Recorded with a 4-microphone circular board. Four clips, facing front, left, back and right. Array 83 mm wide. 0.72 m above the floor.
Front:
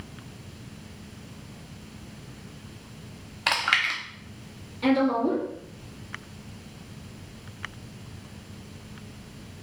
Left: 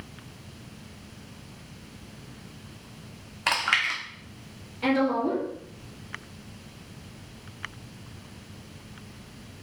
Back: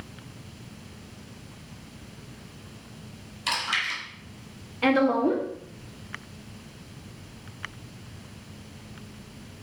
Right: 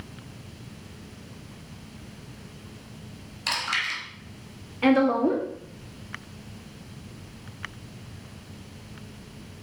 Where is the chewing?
40° left, 1.1 m.